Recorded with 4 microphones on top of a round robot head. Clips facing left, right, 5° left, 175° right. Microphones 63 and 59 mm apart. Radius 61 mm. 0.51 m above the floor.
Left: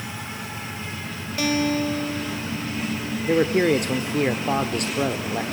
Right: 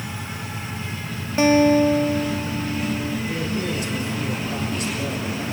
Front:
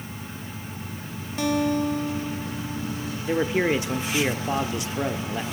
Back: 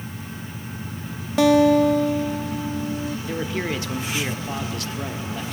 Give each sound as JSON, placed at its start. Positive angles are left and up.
{"t": 1.4, "sound": "a guitar", "azimuth_deg": -160, "distance_m": 1.1}
{"t": 3.3, "sound": "a man speaking", "azimuth_deg": 70, "distance_m": 1.4}